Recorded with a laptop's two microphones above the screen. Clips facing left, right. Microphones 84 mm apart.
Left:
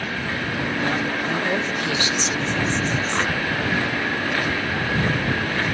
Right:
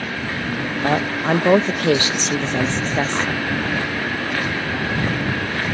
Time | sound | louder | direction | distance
0.8 | a woman speaking | right 9 dB | 50° right (ahead or behind) | ?